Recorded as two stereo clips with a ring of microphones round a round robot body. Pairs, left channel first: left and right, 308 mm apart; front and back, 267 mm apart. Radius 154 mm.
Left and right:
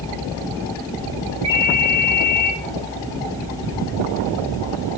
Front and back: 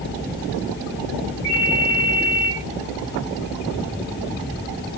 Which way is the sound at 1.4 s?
125° right.